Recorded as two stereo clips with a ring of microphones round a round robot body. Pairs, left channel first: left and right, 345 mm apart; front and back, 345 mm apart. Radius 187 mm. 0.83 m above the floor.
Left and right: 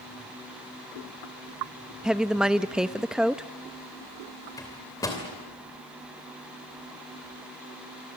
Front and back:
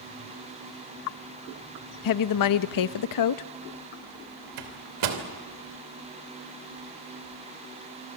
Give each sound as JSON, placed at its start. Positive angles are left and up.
{"t": 2.0, "sound": "a woman speaking", "azimuth_deg": 0, "distance_m": 0.7}
{"t": 4.6, "sound": "a microwave", "azimuth_deg": 170, "distance_m": 2.5}